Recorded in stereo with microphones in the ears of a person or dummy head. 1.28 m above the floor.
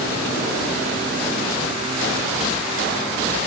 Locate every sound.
Only background noise.